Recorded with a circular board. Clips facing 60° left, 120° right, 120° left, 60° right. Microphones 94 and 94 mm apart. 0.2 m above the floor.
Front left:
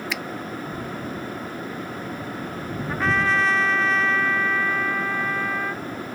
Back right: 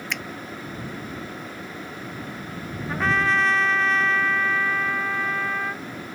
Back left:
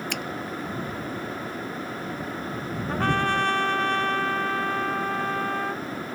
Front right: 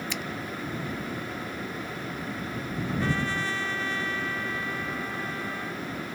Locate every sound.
0.1 s a finger snap: 145° left
2.9 s a trumpet: 150° left